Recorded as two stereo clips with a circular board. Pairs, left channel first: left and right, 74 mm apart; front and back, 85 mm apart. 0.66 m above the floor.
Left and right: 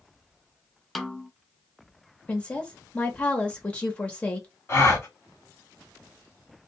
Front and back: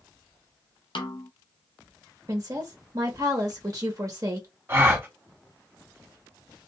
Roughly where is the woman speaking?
Behind left.